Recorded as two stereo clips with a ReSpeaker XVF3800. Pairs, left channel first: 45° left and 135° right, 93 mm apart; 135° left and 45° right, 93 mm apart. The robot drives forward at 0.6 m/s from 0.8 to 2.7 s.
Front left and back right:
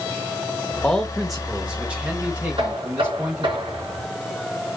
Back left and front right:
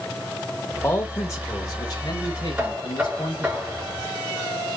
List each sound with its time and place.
0.8 s a man speaking: 110° left, 1.0 m; by 3.6 s 165° left, 1.6 m
2.6 s knocking: 115° right, 3 m